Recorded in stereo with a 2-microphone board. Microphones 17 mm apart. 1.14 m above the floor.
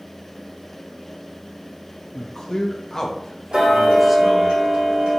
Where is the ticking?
85° right, 2 m.